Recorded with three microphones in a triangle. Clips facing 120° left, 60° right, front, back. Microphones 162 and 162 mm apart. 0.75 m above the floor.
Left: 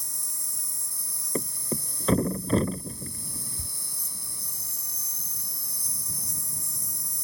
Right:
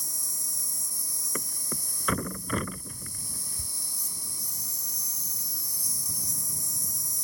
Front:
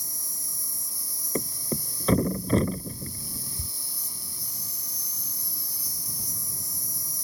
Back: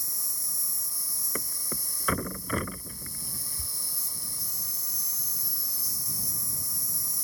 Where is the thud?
60° left.